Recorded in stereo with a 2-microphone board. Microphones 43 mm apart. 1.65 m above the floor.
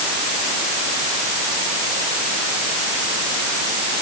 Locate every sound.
Only background noise.